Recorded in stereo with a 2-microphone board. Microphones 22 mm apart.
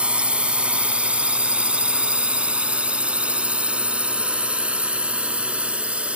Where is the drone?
65° right (ahead or behind); by 6.2 s 70° right (ahead or behind).